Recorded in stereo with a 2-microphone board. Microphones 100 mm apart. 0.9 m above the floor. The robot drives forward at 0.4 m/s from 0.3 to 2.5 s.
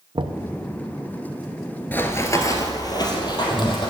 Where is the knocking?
50° right (ahead or behind), 0.6 m; by 0.4 s 55° right (ahead or behind), 0.6 m.